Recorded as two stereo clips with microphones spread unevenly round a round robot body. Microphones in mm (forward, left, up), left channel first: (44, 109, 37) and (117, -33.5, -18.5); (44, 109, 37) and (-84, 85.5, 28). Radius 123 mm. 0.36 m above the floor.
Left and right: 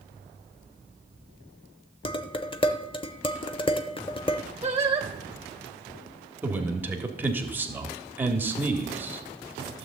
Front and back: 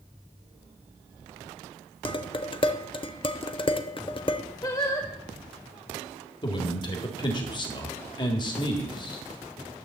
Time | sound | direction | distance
2.0 | dishes clattering | 50° left | 0.8 m
4.6 | singing | 35° right | 1.7 m
6.4 | a man speaking | 25° right | 1.3 m